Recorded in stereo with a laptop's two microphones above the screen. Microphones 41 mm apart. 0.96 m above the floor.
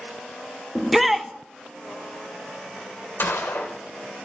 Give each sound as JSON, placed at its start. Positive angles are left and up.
{"t": 0.8, "sound": "a shout", "side_deg": -5, "distance_m": 1.0}
{"t": 3.2, "sound": "a gunshot", "side_deg": 75, "distance_m": 2.0}